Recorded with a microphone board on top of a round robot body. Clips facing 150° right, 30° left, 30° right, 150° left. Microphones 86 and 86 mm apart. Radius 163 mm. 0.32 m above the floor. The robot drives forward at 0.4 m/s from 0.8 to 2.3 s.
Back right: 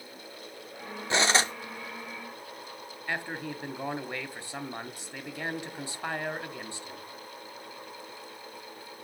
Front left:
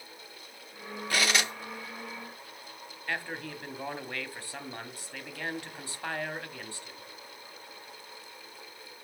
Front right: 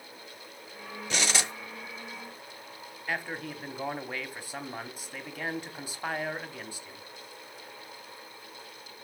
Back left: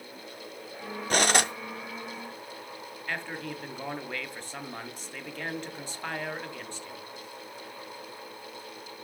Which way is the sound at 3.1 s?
100° right.